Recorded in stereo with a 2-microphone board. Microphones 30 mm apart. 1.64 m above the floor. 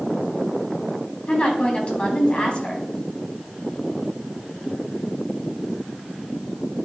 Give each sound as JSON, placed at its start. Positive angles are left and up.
{"t": 1.3, "sound": "a woman speaking", "side_deg": 40, "distance_m": 3.5}